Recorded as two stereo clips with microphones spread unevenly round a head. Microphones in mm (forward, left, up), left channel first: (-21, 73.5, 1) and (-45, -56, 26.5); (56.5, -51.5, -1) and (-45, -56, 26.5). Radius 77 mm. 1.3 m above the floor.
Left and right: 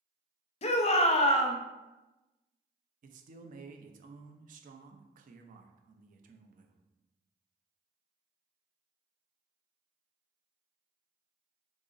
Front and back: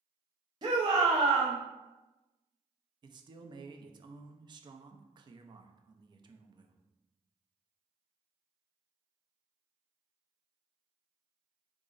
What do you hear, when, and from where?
0.6 s a shout: 115° left, 0.5 m
3.0 s a man speaking: 125° right, 0.5 m